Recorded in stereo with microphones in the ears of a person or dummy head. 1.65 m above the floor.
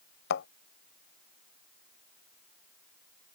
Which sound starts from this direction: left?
A thud, at 0.3 s.